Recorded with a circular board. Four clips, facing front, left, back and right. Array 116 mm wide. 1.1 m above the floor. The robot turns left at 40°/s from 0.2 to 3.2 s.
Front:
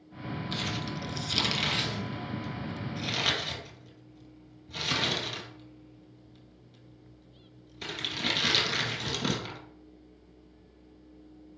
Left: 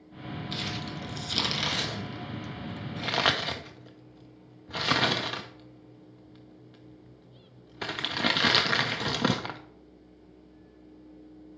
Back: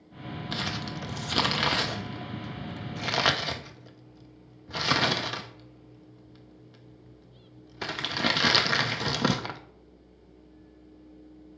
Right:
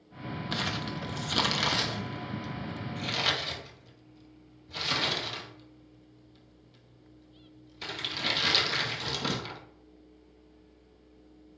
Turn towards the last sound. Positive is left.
turn(degrees=130)